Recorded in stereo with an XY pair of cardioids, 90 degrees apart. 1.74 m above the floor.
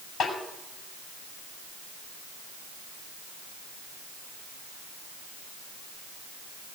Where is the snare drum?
60° left, 6 m.